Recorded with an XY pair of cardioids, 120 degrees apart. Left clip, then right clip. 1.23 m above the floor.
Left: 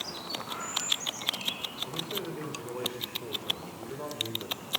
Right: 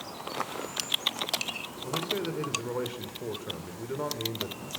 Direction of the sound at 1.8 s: 30° right.